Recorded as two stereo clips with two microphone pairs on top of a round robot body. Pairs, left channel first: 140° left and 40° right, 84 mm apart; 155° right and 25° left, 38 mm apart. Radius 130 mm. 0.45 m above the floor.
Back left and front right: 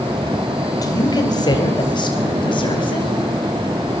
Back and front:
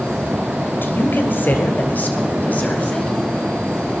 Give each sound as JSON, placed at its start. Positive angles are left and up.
{"t": 0.8, "sound": "a woman speaking", "azimuth_deg": 180, "distance_m": 3.0}